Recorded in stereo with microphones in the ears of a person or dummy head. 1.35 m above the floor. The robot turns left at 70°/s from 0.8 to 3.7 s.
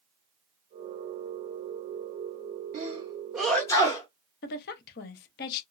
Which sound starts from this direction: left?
A woman speaking, at 4.4 s.